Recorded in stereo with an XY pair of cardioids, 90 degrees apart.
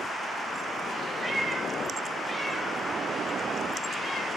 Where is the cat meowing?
25° right, 2 m; by 4.3 s 70° left, 0.8 m.